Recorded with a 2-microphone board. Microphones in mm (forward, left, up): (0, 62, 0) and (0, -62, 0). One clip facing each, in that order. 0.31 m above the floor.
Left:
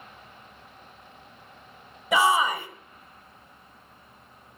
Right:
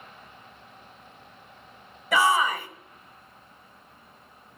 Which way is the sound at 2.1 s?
15° left (ahead or behind).